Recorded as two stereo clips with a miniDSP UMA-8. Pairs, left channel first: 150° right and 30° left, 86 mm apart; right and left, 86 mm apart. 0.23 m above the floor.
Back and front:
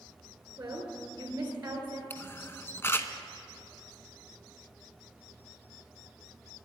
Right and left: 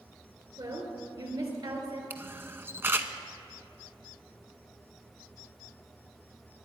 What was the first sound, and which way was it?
A woman speaking, 90° left.